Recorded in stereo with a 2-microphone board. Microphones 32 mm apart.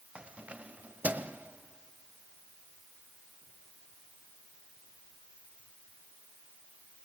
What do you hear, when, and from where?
0.1 s keys jangling: 35° right (ahead or behind), 1.3 m